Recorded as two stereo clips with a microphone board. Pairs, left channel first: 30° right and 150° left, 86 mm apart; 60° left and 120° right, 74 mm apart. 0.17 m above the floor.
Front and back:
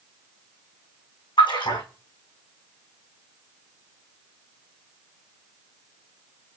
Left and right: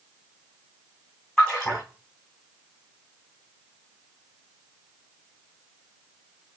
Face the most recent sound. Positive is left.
turn(degrees=-25)